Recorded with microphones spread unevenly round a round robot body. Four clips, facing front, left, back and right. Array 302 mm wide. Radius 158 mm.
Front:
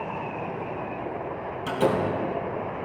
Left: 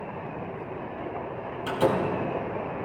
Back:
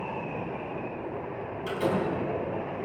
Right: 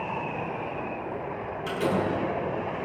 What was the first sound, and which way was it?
A door slam, 30° left.